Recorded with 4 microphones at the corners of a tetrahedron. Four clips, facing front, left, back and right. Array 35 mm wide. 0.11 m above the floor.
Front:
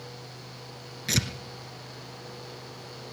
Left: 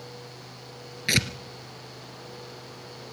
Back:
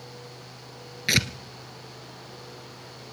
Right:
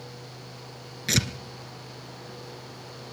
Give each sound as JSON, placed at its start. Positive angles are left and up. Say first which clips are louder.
{"t": 1.1, "sound": "tearing paper", "louder": "left 2 dB, back 5 dB", "azimuth_deg": 150, "distance_m": 0.8}